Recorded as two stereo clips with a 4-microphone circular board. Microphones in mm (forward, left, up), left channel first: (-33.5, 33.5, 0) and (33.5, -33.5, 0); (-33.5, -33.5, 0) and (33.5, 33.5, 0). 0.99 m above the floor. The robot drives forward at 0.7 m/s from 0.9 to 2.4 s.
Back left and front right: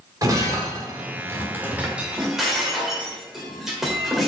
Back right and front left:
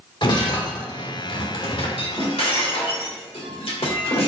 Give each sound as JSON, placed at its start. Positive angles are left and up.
{"t": 0.2, "sound": "breaking glass", "azimuth_deg": -100, "distance_m": 1.5}